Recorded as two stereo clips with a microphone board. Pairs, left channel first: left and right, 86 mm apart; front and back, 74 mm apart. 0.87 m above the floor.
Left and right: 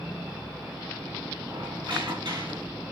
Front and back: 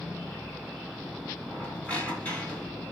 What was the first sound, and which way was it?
A squeak, 75° right.